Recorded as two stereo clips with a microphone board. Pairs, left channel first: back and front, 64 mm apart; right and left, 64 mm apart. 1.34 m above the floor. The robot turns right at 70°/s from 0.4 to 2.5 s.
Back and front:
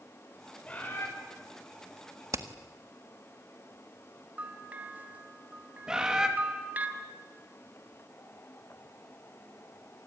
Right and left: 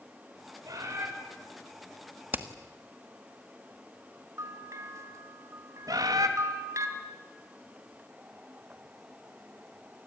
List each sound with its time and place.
0.7 s a bird: 110° left, 5.5 m; by 1.1 s 135° left, 5.5 m
2.3 s hammering: 30° left, 1.4 m; by 2.5 s 40° left, 1.4 m
4.4 s a bell: 60° left, 2.5 m
5.9 s a bird: 80° left, 2.5 m